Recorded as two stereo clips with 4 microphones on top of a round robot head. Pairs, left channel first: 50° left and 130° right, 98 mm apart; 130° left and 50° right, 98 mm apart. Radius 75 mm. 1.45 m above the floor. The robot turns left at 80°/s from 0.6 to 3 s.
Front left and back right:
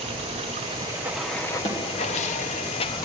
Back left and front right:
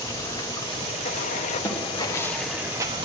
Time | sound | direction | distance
0.0 | running water | 170° right | 0.9 m
1.6 | a snare drum | 70° left | 2 m